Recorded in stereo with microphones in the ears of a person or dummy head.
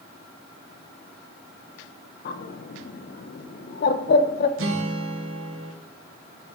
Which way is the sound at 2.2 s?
55° left (ahead or behind).